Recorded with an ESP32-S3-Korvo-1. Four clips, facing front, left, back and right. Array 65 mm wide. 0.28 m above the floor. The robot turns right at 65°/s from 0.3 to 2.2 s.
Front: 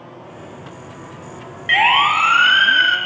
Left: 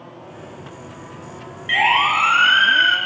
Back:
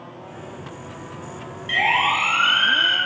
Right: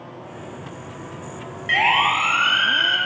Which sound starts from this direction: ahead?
A siren, at 1.7 s.